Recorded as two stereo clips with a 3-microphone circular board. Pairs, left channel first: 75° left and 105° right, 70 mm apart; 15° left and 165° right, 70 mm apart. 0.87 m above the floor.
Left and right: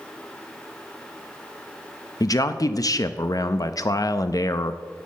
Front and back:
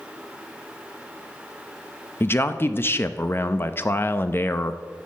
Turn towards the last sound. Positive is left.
turn(degrees=65)